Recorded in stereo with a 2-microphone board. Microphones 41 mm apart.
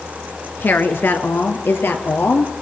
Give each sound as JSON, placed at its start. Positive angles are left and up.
{"t": 0.6, "sound": "a woman speaking", "side_deg": 55, "distance_m": 2.5}